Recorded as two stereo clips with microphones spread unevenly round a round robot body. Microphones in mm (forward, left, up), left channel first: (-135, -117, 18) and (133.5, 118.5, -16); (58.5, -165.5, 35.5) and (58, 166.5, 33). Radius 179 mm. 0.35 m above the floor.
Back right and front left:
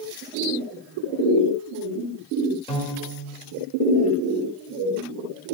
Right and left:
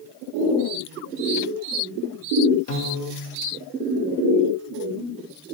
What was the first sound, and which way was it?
A piano, 60° right.